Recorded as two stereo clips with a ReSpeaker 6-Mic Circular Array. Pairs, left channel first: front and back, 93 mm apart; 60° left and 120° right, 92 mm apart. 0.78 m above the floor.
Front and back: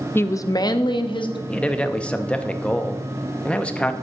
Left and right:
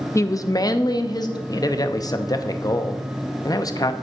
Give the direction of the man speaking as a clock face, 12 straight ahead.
10 o'clock.